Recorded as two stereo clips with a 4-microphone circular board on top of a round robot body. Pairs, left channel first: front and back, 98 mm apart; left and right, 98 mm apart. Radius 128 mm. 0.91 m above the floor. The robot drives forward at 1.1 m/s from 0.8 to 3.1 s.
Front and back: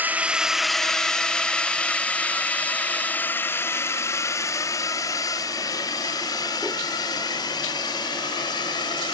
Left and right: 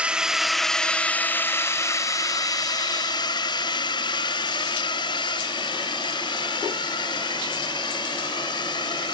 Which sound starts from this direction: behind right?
A drone, at 0.0 s.